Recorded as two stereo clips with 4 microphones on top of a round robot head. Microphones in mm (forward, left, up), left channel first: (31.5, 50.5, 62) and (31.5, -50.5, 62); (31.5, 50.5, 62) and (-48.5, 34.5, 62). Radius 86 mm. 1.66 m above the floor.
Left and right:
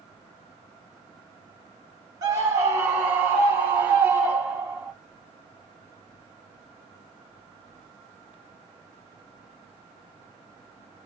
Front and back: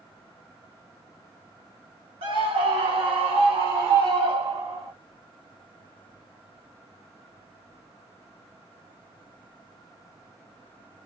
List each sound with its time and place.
2.2 s a scream: 150° right, 1.1 m; by 4.9 s 170° right, 3 m